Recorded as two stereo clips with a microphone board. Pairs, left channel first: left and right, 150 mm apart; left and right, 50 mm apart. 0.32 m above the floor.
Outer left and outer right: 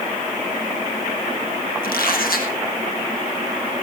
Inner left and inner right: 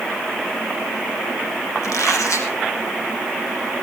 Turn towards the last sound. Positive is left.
turn(degrees=75)  # may be behind; listen again after turning